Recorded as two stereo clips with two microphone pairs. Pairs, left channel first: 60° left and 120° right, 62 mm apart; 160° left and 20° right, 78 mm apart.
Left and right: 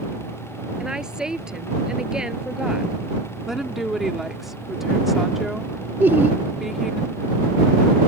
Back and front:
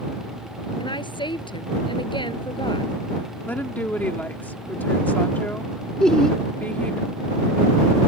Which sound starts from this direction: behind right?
Laughter, at 6.0 s.